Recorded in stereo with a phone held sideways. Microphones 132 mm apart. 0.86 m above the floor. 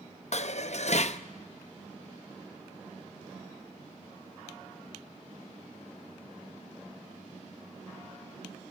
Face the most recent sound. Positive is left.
turn(degrees=60)  # may be behind; listen again after turning